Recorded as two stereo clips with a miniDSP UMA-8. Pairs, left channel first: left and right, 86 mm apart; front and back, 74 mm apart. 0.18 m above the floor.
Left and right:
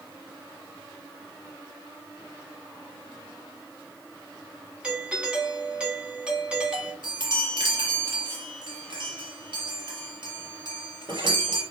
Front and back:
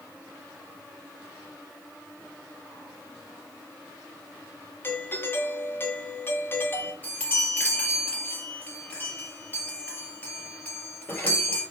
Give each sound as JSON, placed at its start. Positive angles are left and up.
{"t": 4.8, "sound": "a doorbell", "azimuth_deg": -20, "distance_m": 1.7}
{"t": 7.0, "sound": "a chime", "azimuth_deg": -65, "distance_m": 4.5}